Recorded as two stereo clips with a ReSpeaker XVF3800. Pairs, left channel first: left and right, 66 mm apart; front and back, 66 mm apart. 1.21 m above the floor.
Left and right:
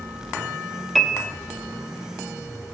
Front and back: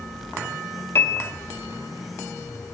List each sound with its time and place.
0.9 s a piano: 5° left, 0.7 m